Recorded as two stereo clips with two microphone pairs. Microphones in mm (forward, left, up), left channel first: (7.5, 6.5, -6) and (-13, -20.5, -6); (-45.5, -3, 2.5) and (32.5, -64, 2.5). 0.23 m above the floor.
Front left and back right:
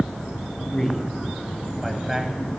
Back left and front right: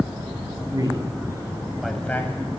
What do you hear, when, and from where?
0.7 s a man speaking: 20° right, 1.6 m; by 2.6 s 170° left, 1.3 m